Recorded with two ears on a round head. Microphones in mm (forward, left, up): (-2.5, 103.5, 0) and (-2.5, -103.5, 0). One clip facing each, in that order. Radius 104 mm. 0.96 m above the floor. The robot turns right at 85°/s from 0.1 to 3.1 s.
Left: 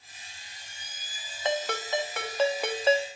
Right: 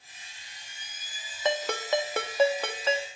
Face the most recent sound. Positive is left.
turn(degrees=50)